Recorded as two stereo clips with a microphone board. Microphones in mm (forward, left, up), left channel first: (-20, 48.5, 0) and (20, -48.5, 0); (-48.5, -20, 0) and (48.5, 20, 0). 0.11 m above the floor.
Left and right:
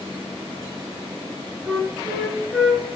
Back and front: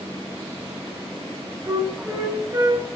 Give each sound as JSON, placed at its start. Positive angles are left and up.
{"t": 1.7, "sound": "a flute", "azimuth_deg": 20, "distance_m": 0.6}